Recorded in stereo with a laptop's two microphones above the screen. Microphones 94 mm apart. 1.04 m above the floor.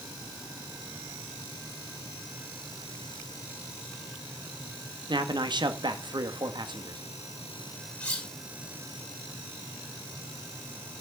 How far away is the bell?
I don't hear a bell.